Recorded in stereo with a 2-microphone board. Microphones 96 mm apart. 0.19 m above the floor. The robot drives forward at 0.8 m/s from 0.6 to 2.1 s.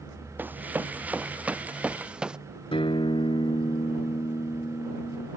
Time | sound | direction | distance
0.4 | running footsteps | 20° right (ahead or behind) | ?
2.7 | a guitar | 75° left (ahead or behind) | ?